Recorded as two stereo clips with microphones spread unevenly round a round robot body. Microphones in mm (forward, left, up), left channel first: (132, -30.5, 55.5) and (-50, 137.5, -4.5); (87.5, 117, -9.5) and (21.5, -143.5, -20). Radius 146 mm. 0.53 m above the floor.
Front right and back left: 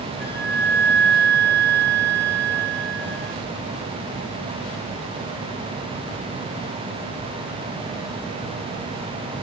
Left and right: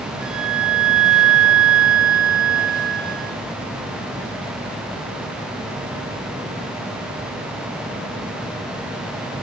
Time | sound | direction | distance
0.2 | a flute | 130° right | 6.5 m